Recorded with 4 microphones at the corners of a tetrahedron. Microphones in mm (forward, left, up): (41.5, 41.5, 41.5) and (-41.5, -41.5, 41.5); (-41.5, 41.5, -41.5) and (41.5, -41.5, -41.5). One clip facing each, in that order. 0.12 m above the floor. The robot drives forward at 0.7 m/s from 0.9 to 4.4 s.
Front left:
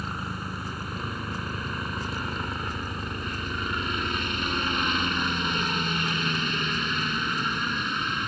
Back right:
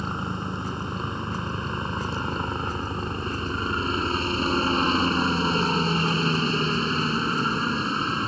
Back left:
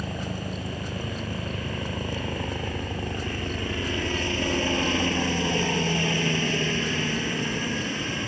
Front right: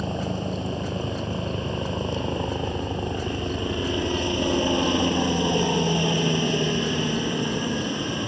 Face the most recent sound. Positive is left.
turn(degrees=-105)